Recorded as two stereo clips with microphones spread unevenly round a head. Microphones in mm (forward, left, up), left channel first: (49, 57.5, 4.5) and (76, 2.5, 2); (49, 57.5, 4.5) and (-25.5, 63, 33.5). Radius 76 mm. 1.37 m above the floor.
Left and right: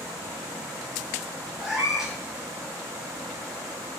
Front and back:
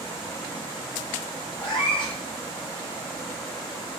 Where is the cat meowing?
15° left, 1.7 m.